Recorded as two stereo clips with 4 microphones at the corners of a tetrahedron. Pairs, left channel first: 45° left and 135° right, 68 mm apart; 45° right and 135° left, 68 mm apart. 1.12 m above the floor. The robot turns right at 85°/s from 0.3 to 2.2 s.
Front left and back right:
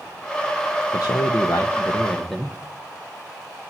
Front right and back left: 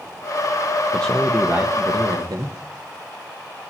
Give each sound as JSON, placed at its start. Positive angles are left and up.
{"t": 0.9, "sound": "a man speaking", "azimuth_deg": 25, "distance_m": 1.1}